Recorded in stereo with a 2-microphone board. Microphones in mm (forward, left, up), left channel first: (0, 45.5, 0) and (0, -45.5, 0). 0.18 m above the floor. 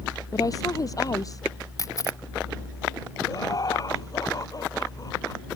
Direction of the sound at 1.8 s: 40° left (ahead or behind).